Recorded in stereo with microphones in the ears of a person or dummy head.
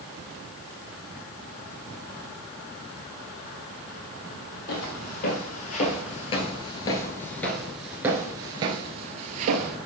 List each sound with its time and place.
4.7 s footsteps: 60° left (ahead or behind), 2.5 m; by 9.8 s 45° right (ahead or behind), 1.7 m